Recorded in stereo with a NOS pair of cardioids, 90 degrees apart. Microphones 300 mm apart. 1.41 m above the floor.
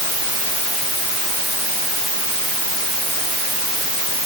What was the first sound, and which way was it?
Only background noise.